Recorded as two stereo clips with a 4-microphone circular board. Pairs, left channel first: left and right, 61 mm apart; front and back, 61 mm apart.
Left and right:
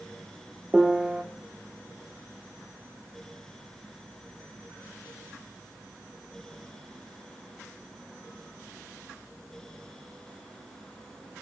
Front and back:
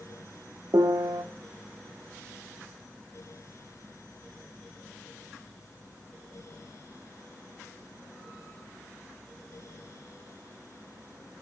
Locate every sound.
0.7 s a piano: 165° right, 0.7 m